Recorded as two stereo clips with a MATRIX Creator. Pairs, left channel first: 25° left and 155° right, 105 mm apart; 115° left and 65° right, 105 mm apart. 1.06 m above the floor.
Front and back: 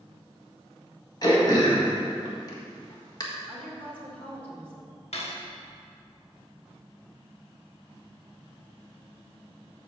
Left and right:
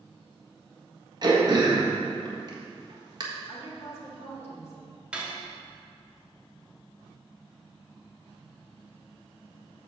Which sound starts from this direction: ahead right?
Throat clearing, at 1.2 s.